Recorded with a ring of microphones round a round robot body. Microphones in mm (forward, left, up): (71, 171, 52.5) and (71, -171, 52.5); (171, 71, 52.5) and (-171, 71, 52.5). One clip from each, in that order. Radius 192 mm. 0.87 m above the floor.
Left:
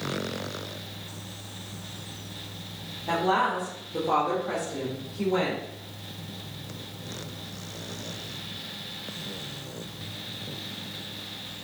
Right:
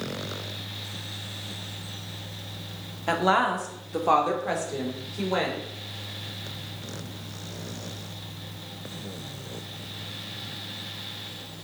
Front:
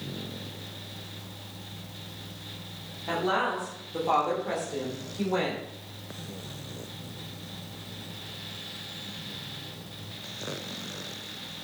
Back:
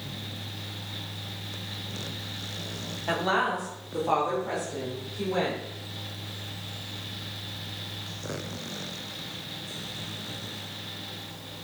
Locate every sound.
3.1 s a woman speaking: 110° right, 1.9 m; by 5.6 s 70° right, 3.5 m